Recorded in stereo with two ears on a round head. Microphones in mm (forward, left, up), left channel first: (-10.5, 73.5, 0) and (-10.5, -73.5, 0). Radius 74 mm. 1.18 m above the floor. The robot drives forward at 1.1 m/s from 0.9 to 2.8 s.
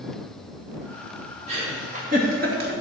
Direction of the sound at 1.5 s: 40° right (ahead or behind).